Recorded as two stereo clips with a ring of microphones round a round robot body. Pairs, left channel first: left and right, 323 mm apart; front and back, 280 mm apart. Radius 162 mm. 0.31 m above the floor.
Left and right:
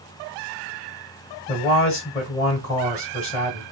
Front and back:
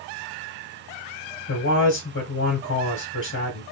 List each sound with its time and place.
1.5 s a man speaking: 25° left, 1.6 m